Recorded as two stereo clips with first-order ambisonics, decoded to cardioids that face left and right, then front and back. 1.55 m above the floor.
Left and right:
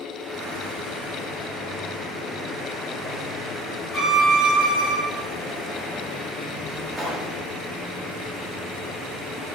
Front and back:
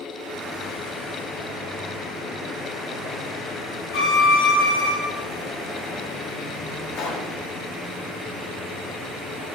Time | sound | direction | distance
3.9 | a violin | straight ahead | 1.2 m
6.9 | a pop | 10° right | 0.9 m